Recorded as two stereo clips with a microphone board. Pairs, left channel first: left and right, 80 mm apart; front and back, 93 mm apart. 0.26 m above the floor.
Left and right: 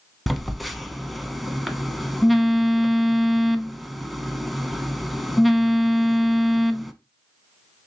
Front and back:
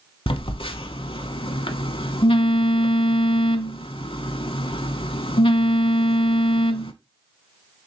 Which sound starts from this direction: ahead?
A phone buzzing, at 0.3 s.